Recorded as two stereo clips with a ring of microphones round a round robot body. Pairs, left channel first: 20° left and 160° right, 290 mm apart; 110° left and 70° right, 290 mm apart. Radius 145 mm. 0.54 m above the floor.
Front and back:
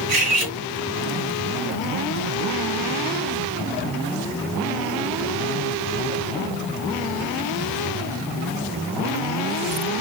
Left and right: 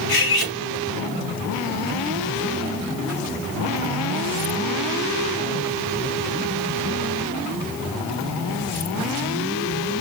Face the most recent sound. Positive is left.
turn(degrees=160)